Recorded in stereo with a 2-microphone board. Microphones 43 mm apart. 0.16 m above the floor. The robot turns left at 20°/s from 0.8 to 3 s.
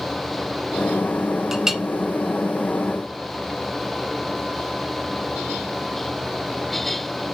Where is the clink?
10° right (ahead or behind), 0.8 m; by 1.8 s 5° right (ahead or behind), 0.8 m.